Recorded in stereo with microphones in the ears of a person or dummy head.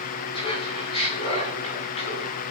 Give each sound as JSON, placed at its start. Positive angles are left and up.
{"t": 0.3, "sound": "laughter", "side_deg": 35, "distance_m": 9.0}